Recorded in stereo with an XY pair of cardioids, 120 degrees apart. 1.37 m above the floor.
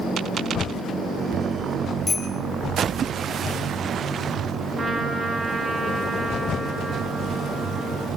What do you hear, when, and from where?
2.1 s a bicycle bell: 10° left, 5.5 m
4.8 s a trumpet: 35° right, 3 m